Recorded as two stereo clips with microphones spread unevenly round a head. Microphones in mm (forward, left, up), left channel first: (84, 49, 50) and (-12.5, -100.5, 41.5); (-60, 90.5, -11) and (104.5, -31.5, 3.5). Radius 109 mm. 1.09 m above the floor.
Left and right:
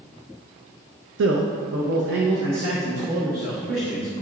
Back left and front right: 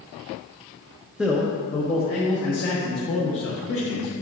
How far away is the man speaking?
About 0.6 m.